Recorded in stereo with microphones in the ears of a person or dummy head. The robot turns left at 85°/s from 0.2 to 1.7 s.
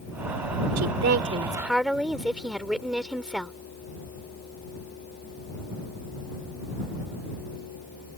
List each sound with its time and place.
0.8 s a woman speaking: 100° right; by 3.5 s 175° right